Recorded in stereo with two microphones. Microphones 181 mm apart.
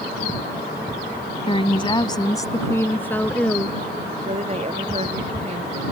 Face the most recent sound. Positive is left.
turn(degrees=-35)  # may be behind; listen again after turning